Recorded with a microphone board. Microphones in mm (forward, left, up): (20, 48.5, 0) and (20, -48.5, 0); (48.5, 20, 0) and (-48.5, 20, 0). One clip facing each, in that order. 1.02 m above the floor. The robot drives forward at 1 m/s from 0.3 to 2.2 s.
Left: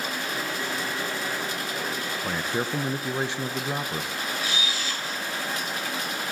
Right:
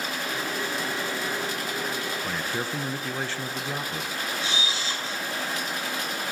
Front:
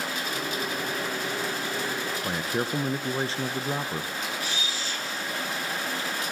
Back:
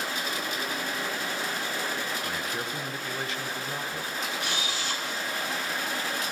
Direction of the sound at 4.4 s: 150° right.